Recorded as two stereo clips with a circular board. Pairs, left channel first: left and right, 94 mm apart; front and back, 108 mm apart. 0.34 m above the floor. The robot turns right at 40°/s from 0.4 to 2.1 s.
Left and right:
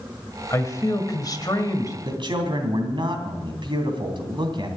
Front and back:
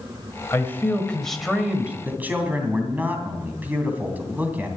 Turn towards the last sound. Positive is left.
turn(degrees=-110)